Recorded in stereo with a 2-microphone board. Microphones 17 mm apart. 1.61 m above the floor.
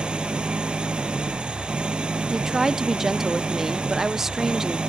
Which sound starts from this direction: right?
An engine running, at 0.0 s.